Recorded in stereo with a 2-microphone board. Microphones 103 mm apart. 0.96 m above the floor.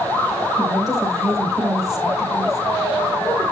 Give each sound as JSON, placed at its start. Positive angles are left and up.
{"t": 0.6, "sound": "a woman speaking", "side_deg": 0, "distance_m": 5.0}